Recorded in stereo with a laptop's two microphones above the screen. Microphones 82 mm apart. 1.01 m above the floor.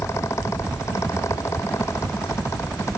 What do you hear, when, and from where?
0.0 s a fan: 35° left (ahead or behind)